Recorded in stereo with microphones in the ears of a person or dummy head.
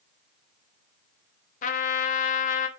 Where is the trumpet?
40° left (ahead or behind), 0.9 m.